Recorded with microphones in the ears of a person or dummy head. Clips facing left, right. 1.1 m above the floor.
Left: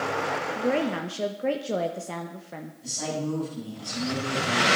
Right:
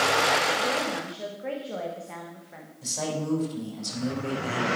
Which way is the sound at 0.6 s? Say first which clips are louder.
Left 4 dB; 55° left (ahead or behind).